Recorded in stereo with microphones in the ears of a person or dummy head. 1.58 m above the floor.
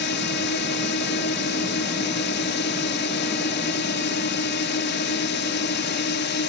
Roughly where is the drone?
Left.